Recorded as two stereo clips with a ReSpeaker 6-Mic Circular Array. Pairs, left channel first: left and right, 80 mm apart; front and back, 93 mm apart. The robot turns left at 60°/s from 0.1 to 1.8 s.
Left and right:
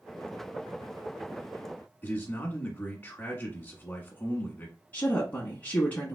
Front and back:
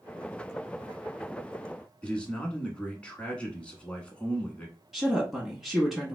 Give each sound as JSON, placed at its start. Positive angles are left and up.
{"t": 2.0, "sound": "a man speaking", "azimuth_deg": 65, "distance_m": 1.1}
{"t": 4.9, "sound": "a woman speaking", "azimuth_deg": 100, "distance_m": 1.0}